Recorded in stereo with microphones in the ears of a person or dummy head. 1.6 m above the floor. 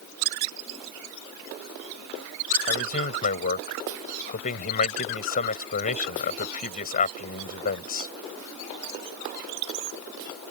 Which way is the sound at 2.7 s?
35° left (ahead or behind).